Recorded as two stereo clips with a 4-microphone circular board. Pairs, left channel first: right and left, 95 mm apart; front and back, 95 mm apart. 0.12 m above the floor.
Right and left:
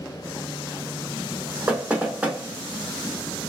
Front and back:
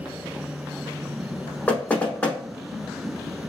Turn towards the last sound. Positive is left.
turn(degrees=45)